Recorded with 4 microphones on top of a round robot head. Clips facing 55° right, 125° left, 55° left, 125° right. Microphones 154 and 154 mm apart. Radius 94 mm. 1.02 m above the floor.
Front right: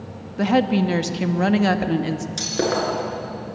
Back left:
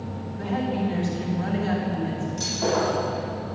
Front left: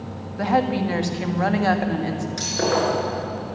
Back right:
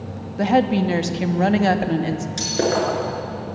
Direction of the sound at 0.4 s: 60° right.